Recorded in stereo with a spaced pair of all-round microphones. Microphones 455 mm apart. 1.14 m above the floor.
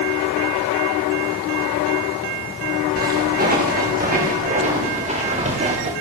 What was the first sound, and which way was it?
Footsteps, 20° right (ahead or behind).